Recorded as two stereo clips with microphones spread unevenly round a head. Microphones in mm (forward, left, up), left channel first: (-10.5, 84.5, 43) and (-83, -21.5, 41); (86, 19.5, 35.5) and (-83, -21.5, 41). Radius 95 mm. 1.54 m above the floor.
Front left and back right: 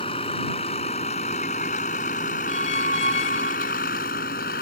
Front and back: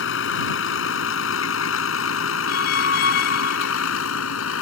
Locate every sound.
0.0 s a vehicle: 5° right; by 4.6 s 20° left
2.5 s a squeak: 20° left